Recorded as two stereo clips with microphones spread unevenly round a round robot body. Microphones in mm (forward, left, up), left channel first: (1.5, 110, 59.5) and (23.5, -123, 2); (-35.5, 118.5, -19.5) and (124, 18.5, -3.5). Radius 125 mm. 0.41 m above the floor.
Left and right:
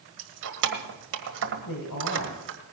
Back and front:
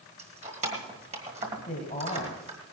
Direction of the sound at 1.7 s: 100° left.